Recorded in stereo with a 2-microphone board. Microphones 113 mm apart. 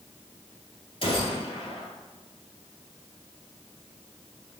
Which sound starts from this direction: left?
A gunshot, at 1.0 s.